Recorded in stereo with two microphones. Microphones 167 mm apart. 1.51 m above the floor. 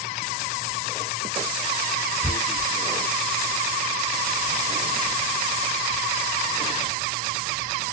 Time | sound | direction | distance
2.2 | tearing paper | 35° left (ahead or behind) | 1.0 m